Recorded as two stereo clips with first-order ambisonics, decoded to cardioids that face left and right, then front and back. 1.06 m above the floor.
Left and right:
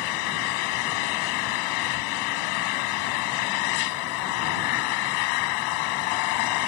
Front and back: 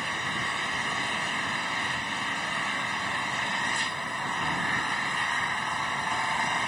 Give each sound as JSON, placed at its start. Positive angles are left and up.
{"t": 0.0, "sound": "an engine running", "azimuth_deg": 90}